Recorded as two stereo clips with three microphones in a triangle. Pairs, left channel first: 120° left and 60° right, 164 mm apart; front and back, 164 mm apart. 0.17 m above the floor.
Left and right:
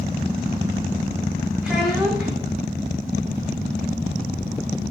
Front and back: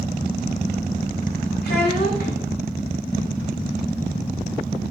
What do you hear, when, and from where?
1.6 s a child speaking: 25° left, 8 m